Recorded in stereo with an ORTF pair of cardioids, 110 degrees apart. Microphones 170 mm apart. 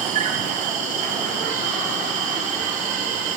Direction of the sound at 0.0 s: 45° right.